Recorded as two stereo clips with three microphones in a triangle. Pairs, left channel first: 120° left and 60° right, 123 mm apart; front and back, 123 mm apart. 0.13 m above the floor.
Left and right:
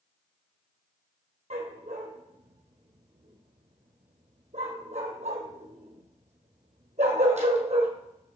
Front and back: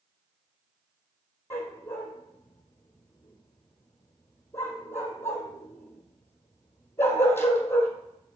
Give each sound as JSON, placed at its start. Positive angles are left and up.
{"t": 1.5, "sound": "a dog barking", "azimuth_deg": -70, "distance_m": 1.5}